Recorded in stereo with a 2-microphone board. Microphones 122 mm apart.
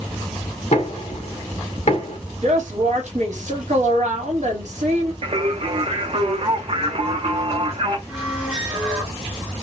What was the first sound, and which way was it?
Knocking, 65° left (ahead or behind).